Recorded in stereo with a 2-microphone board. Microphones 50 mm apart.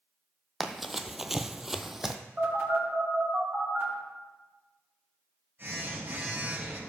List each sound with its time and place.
0.6 s running footsteps: centre (ahead or behind), 0.8 m; by 2.2 s 5° right (ahead or behind), 0.8 m
2.4 s a phone buzzing: 50° right (ahead or behind), 5 m